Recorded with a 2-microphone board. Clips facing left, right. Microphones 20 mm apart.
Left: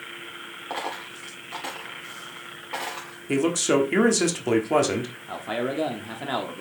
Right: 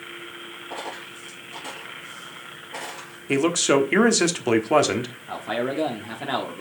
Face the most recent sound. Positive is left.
turn(degrees=-5)  # may be behind; listen again after turning